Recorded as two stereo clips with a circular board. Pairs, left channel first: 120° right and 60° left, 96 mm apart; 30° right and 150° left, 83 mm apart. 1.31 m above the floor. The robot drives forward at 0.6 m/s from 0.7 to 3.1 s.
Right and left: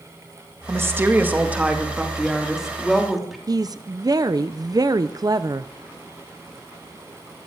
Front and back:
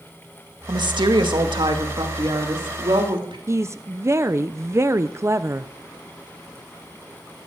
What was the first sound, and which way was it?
A woman speaking, 120° left.